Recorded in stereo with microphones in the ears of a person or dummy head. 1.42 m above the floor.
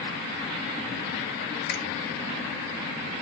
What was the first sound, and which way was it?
A finger snap, 60° left (ahead or behind).